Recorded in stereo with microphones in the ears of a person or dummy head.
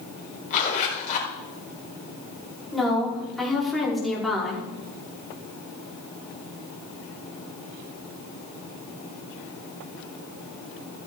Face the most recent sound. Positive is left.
turn(degrees=0)  # may be behind; listen again after turning